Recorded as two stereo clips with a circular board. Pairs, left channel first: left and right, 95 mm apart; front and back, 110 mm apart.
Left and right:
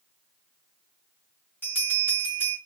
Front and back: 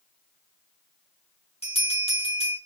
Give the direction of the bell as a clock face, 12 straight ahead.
11 o'clock.